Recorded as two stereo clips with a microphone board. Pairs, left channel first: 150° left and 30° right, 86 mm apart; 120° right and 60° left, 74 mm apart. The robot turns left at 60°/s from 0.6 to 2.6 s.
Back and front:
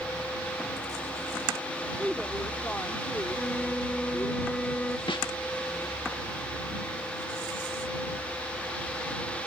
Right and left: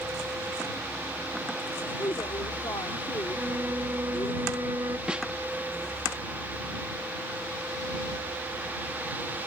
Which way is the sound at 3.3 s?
80° left.